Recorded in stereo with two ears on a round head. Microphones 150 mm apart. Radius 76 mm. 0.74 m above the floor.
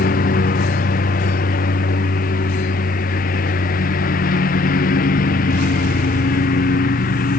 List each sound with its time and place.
0.0 s a lawn mower: 55° left (ahead or behind)